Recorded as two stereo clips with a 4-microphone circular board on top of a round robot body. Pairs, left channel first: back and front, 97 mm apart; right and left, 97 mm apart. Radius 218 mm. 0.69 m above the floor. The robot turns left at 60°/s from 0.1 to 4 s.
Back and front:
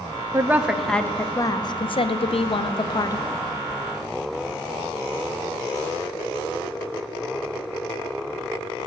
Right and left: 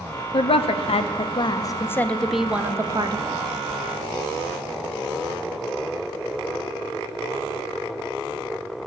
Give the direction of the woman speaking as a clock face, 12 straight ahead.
2 o'clock.